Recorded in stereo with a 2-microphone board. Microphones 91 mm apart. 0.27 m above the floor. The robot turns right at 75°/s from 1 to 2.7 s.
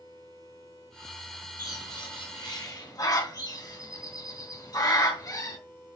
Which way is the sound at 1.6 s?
40° left (ahead or behind).